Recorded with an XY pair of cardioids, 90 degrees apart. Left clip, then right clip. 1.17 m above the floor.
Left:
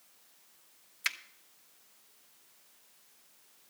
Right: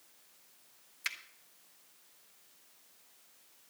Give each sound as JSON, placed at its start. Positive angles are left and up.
{"t": 1.0, "sound": "a finger snap", "azimuth_deg": 35, "distance_m": 1.2}